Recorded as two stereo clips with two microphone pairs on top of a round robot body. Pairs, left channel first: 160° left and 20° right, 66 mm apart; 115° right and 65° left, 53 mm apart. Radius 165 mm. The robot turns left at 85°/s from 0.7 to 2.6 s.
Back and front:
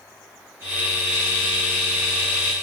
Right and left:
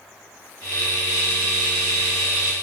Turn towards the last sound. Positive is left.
No sound to turn to.